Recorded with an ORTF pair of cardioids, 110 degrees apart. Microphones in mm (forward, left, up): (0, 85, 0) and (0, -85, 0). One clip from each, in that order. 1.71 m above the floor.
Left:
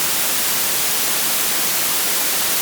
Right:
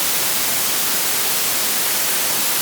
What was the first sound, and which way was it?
Only background noise.